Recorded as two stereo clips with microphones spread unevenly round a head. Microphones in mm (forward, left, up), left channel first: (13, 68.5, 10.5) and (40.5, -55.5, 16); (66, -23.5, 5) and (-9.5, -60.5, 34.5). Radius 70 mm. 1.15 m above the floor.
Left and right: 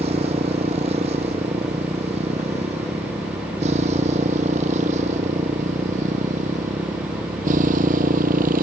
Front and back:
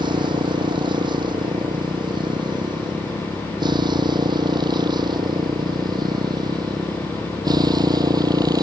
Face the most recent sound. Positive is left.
turn(degrees=-115)